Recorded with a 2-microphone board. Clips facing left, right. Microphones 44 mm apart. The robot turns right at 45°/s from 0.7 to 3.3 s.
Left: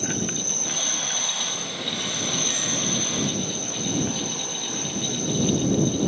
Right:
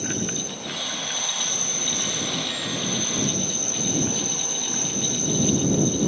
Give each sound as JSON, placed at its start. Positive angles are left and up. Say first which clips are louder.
{"t": 0.0, "sound": "an insect", "louder": "even", "azimuth_deg": 110}